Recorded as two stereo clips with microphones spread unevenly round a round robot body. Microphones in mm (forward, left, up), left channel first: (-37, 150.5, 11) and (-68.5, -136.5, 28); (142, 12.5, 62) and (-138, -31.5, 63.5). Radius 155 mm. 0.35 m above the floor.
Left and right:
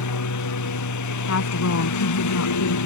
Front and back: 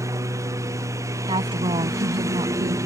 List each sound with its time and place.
0.0 s a lawn mower: 110° left
1.3 s a woman speaking: 115° left